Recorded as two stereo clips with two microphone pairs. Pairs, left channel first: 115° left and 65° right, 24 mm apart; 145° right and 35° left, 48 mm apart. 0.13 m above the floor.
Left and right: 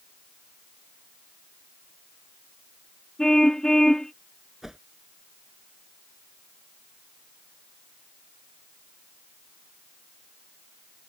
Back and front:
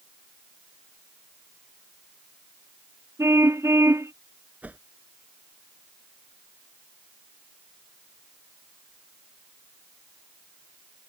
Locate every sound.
3.2 s a car horn: 55° left
4.6 s a whoosh: straight ahead